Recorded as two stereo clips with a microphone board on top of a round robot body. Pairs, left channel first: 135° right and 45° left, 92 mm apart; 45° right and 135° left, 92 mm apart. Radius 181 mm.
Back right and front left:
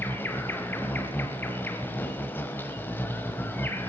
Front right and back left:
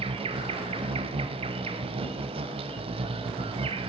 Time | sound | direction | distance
0.0 | an insect | 155° left | 0.9 m